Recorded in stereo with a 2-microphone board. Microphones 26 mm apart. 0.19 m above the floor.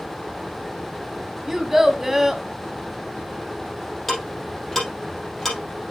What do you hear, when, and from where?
1.5 s a child speaking: 15° right (ahead or behind), 0.7 m
4.1 s ticking: 10° left (ahead or behind), 4 m